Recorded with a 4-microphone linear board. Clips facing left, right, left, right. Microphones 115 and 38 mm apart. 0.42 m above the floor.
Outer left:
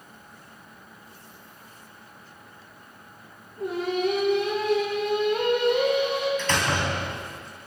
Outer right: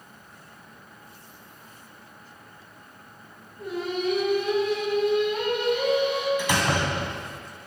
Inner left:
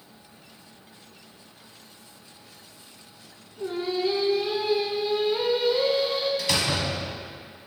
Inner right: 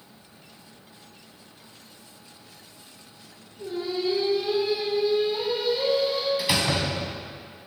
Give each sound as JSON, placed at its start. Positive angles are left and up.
{"t": 3.6, "sound": "singing", "side_deg": 60, "distance_m": 4.5}
{"t": 6.4, "sound": "a door slam", "side_deg": -10, "distance_m": 3.0}